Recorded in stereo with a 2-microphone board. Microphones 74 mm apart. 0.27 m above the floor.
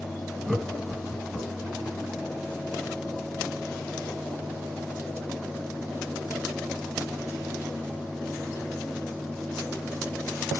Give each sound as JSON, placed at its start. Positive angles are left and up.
{"t": 0.5, "sound": "laughter", "side_deg": 5, "distance_m": 2.5}